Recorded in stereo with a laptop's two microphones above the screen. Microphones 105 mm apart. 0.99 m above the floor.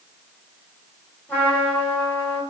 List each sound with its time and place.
1.3 s a trumpet: 20° left (ahead or behind), 3 m